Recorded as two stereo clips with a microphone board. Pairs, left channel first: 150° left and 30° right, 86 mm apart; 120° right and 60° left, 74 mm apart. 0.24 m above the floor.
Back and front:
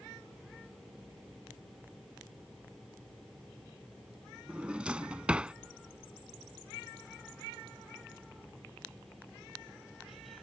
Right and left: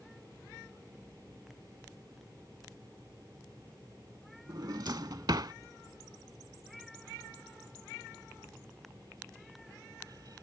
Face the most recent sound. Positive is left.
turn(degrees=45)